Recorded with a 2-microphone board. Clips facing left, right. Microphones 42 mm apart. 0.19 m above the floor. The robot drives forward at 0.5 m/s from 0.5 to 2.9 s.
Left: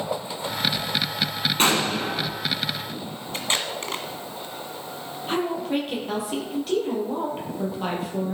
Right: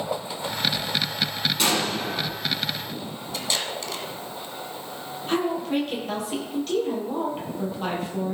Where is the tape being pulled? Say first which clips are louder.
Left 2 dB; 40° left (ahead or behind), 1.5 m.